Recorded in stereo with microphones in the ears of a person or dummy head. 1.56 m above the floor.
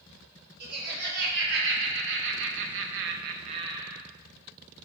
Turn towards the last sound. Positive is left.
turn(degrees=-5)  # may be behind; listen again after turning